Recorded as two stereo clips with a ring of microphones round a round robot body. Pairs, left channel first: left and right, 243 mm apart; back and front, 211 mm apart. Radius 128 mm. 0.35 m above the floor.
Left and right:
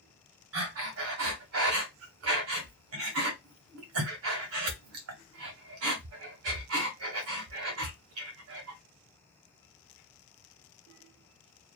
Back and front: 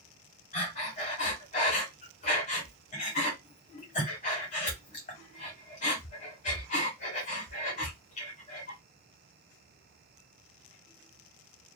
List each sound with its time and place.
0.5 s breathing: 120° right, 1.0 m